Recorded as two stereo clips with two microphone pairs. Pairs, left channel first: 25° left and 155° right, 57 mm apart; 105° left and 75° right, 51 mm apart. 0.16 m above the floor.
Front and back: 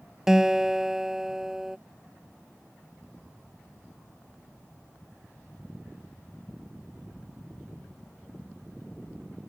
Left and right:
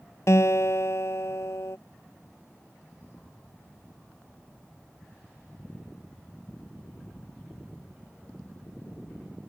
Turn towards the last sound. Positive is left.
turn(degrees=125)